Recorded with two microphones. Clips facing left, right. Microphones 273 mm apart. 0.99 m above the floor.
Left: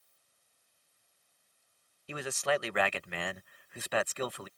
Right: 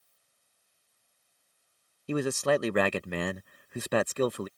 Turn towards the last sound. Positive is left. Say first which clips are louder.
# right 7 dB
turn(degrees=-50)  # may be behind; listen again after turning